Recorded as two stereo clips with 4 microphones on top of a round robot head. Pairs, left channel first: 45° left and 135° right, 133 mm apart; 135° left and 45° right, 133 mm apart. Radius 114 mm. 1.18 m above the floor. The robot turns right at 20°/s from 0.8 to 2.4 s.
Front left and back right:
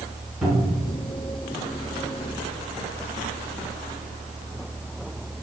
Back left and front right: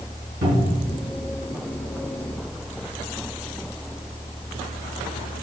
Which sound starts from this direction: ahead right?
A cupboard door, at 0.4 s.